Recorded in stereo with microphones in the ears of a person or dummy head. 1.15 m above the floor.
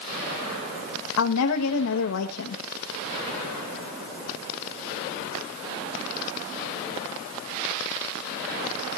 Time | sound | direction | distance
1.2 | a woman speaking | 85° left | 1.1 m